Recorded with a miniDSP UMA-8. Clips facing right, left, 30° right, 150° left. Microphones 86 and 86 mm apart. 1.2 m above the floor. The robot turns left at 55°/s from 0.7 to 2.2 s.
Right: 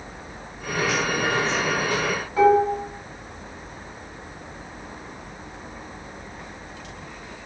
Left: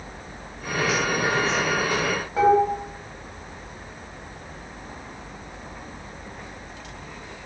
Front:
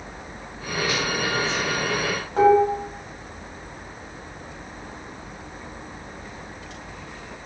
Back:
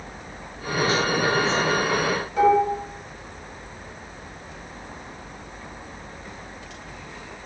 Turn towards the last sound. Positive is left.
turn(degrees=20)